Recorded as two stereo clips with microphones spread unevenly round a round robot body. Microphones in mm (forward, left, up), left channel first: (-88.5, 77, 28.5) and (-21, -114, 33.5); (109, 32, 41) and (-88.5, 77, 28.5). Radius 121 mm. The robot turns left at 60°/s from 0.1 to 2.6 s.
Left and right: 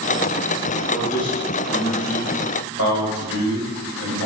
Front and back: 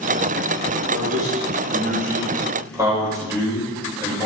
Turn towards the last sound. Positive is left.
turn(degrees=95)